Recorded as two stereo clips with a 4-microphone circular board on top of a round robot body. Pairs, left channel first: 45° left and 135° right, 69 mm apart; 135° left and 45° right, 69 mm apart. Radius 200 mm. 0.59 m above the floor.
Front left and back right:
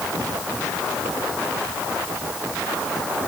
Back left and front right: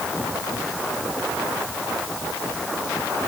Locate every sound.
Only background noise.